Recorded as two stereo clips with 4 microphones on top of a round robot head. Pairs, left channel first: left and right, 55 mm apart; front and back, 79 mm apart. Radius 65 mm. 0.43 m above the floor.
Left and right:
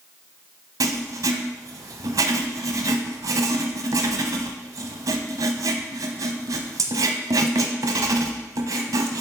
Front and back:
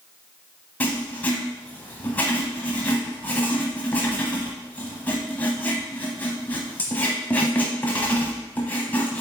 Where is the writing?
75° right, 0.8 m.